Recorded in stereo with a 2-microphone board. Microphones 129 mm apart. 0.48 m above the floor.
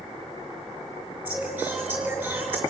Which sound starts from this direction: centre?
Singing, at 1.2 s.